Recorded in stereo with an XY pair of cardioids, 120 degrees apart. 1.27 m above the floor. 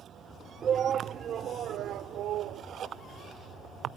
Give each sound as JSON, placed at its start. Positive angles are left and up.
{"t": 0.6, "sound": "a shout", "azimuth_deg": -45}